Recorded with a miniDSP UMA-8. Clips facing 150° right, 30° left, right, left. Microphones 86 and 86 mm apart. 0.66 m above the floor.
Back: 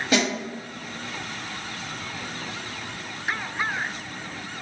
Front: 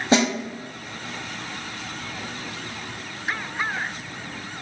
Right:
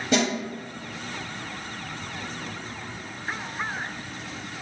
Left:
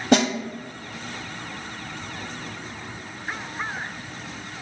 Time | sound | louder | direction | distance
0.1 | a snare drum | front 4 dB, left 5 dB | 85° left | 0.7 m